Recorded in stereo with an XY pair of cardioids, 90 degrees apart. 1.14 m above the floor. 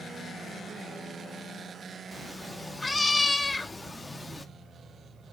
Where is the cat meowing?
20° left, 1.1 m.